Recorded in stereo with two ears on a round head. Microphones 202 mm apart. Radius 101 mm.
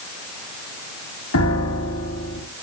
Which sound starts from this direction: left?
A piano, at 1.3 s.